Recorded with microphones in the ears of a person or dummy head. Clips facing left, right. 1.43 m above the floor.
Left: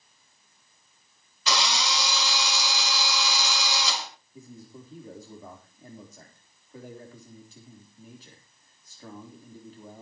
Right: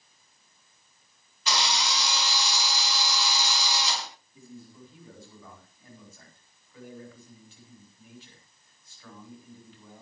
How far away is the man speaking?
About 4 m.